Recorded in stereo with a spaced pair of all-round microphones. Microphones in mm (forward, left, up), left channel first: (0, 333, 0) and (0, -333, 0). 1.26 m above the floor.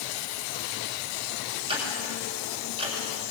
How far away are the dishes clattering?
No dishes clattering in this recording.